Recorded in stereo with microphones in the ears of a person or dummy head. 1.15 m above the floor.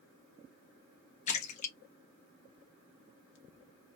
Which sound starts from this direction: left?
A splash, at 1.3 s.